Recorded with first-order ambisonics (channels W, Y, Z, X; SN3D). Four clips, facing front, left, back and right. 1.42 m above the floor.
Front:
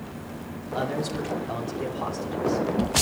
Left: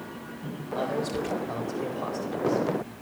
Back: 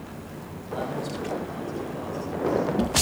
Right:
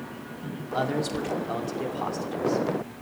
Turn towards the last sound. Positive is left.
turn(degrees=-50)